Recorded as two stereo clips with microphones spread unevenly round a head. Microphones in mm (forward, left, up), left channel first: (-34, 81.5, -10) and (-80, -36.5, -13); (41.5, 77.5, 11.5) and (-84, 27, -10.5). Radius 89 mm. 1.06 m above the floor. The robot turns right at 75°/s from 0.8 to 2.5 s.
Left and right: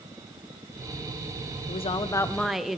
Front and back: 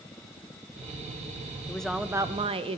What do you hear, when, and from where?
1.7 s a woman speaking: 100° left, 0.6 m; by 2.8 s 160° left, 0.6 m